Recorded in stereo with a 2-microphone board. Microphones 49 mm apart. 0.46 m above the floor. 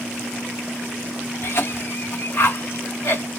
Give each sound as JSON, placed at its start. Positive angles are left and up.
{"t": 1.4, "sound": "a cough", "side_deg": 65, "distance_m": 3.0}